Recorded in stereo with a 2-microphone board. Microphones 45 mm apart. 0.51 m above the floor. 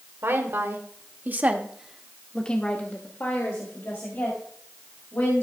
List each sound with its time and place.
0.2 s a woman speaking: 65° right (ahead or behind), 1.9 m; by 5.4 s 70° left (ahead or behind), 3.5 m